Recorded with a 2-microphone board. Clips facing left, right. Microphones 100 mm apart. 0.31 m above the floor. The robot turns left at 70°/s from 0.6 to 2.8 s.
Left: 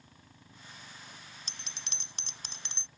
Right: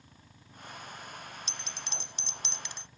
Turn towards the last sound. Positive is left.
turn(degrees=30)